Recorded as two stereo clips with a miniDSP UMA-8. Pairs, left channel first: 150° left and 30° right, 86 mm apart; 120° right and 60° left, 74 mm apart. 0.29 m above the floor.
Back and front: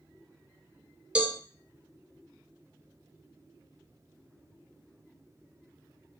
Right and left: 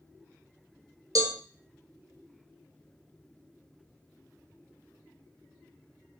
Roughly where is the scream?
No scream in this recording.